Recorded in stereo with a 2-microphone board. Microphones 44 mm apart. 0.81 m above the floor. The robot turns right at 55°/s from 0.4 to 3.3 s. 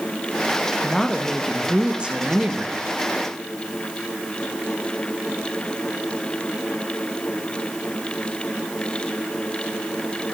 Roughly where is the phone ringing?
I don't hear a phone ringing.